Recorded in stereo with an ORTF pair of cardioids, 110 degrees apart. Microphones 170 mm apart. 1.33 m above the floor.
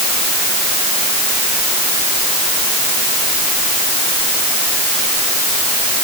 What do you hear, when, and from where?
Only background noise.